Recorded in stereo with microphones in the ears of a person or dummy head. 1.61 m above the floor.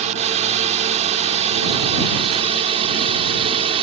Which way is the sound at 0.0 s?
35° right (ahead or behind).